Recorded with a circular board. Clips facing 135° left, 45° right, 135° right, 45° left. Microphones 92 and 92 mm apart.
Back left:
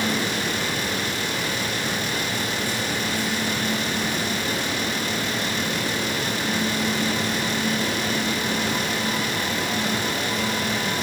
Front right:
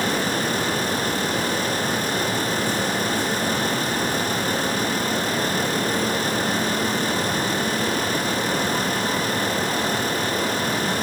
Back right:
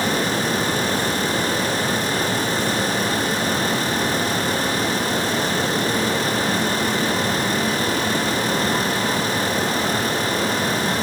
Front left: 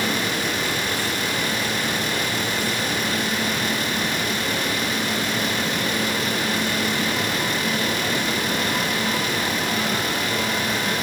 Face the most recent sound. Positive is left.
No sound to turn to.